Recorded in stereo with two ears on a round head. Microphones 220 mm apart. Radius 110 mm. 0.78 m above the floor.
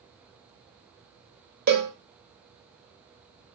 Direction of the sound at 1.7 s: 45° right (ahead or behind).